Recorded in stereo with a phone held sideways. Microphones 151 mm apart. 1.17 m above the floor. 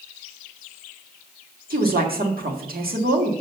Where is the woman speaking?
80° right, 1.9 m.